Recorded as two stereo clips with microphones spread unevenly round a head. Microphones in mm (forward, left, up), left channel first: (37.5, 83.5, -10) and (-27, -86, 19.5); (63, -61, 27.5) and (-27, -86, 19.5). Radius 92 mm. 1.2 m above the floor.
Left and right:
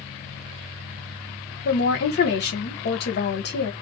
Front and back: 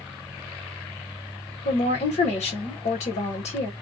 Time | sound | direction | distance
1.6 | a woman speaking | 35° left | 1.2 m